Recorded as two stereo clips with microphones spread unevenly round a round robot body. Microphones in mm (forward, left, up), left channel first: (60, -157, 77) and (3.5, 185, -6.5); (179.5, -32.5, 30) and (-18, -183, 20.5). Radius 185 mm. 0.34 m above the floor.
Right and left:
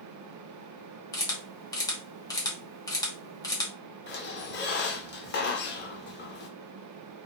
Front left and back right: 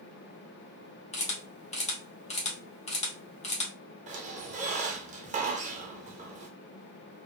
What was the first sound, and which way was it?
A camera shutter, 20° left.